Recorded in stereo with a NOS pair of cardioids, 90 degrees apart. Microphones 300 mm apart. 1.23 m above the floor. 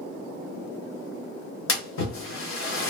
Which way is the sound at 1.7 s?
40° left.